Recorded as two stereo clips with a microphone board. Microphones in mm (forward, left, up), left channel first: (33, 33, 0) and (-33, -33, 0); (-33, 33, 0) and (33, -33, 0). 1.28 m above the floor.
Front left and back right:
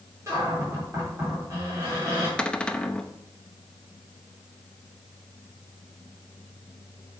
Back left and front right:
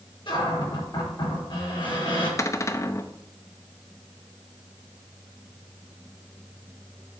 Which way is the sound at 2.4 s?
115° left.